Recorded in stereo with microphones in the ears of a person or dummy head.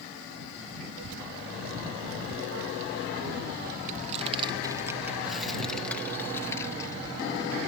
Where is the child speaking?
75° right (ahead or behind); by 7.6 s 25° left (ahead or behind).